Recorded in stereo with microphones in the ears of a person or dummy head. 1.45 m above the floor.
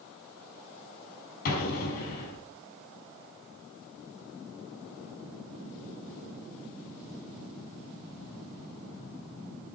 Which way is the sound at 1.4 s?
55° left (ahead or behind).